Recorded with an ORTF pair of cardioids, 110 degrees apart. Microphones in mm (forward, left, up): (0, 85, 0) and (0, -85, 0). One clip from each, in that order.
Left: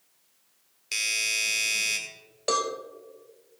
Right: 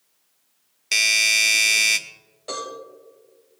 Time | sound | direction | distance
0.9 | a doorbell | 50° right | 1.3 m
2.5 | a cowbell | 60° left | 2.5 m